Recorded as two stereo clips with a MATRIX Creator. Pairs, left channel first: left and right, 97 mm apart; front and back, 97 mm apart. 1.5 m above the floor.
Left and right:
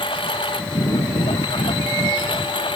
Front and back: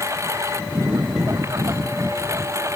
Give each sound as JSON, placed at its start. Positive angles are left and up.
{"t": 0.0, "sound": "a lawn mower", "azimuth_deg": 120}